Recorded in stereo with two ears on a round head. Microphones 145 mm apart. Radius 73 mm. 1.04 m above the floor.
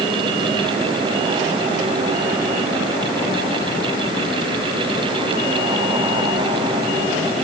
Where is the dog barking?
No dog barking in this recording.